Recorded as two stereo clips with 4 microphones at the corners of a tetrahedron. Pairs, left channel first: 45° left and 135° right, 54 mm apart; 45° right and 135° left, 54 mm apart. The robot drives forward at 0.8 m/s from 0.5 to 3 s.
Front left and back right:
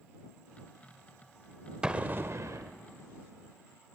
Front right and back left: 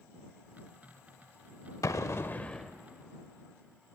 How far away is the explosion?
About 0.6 m.